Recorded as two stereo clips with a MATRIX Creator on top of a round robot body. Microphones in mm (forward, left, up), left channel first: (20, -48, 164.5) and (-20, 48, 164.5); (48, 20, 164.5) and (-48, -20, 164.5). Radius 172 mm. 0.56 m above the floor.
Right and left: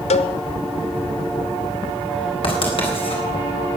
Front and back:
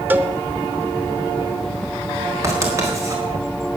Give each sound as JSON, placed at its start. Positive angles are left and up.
{"t": 0.1, "sound": "a cowbell", "azimuth_deg": -85, "distance_m": 0.7}
{"t": 2.4, "sound": "writing", "azimuth_deg": -95, "distance_m": 4.5}